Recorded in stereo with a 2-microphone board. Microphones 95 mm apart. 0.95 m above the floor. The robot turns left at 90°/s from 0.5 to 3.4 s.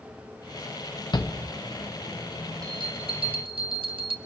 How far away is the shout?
About 0.9 m.